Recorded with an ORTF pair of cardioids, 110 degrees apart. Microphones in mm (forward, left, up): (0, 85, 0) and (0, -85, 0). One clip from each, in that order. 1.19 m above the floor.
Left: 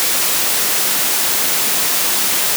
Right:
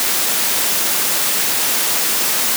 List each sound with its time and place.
Only background noise.